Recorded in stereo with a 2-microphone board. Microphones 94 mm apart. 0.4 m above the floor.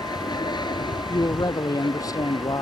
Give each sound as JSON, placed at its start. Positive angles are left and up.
{"t": 0.0, "sound": "an aircraft", "side_deg": 50}
{"t": 1.1, "sound": "a man speaking", "side_deg": 40}